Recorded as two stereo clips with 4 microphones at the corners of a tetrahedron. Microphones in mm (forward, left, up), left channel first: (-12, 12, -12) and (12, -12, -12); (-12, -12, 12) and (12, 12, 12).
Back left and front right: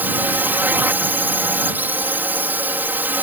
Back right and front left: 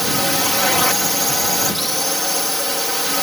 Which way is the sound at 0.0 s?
50° right.